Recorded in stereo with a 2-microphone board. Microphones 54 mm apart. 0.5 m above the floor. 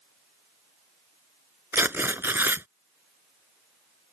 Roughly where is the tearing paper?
Right.